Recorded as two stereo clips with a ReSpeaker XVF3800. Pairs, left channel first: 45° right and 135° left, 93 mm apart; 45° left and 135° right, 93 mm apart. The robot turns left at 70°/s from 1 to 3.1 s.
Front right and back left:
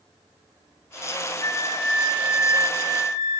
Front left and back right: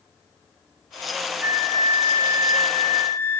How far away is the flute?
About 1.9 m.